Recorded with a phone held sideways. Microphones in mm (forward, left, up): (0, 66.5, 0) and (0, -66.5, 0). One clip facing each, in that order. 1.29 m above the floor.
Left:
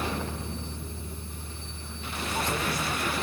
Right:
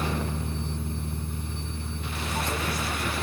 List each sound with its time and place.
0.0 s a fan: 75° right (ahead or behind)